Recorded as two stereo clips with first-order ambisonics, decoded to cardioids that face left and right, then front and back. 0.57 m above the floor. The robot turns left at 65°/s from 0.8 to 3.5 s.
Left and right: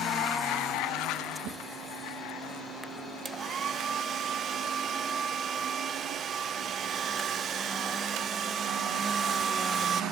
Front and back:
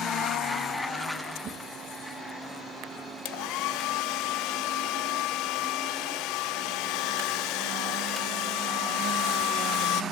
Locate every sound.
1.4 s a whoosh: 100° right, 1.4 m; by 1.6 s 110° right, 1.4 m
3.2 s a hair dryer: 15° right, 0.6 m; by 10.0 s 30° right, 0.6 m